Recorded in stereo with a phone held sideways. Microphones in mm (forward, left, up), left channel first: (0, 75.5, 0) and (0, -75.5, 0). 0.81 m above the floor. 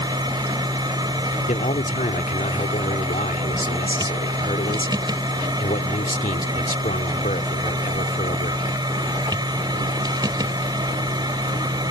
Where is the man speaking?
65° left (ahead or behind).